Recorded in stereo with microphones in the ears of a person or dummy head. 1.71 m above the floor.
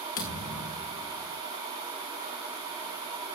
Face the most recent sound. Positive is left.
turn(degrees=45)  # may be behind; listen again after turning